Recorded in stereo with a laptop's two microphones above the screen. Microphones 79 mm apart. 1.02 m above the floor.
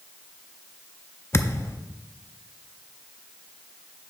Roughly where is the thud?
Left.